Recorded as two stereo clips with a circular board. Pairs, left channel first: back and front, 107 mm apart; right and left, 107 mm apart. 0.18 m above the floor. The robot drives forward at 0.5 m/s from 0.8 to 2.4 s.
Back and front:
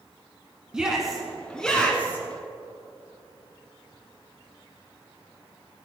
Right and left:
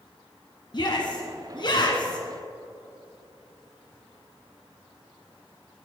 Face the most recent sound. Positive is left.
turn(degrees=-115)